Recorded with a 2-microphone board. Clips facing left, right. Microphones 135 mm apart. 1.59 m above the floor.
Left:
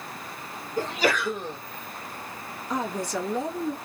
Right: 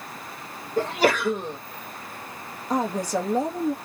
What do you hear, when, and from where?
0.8 s a sneeze: 50° right (ahead or behind), 1.5 m
2.7 s a woman speaking: 40° right (ahead or behind), 1.3 m